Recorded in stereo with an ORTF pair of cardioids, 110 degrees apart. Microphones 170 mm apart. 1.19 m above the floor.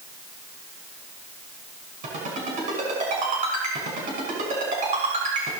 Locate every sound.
2.0 s a ringtone: 50° right, 6 m